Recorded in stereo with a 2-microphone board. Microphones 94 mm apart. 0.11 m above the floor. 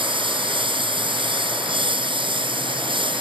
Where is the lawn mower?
60° right (ahead or behind).